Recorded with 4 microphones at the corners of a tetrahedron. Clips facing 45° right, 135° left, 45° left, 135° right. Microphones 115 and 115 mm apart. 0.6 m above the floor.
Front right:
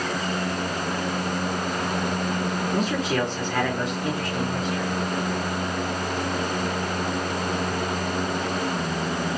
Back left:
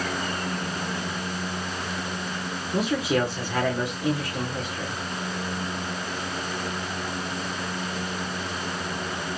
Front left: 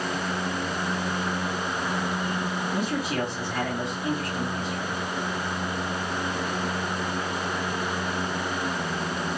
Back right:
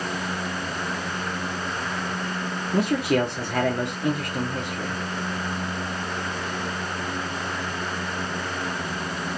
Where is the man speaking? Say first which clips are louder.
Back left 3 dB, back right 9 dB; 145° right, 1.3 m.